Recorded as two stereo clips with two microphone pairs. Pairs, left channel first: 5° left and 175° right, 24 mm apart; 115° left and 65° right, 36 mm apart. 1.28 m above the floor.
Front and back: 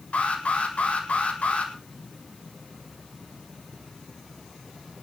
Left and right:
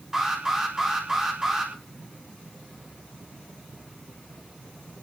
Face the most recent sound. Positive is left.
turn(degrees=5)